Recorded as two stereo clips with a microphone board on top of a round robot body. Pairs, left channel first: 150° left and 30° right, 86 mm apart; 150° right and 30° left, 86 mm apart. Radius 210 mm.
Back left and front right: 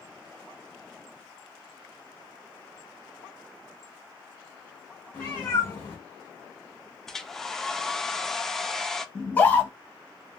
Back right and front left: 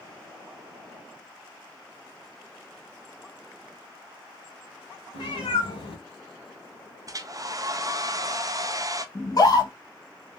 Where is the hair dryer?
65° left, 0.6 m.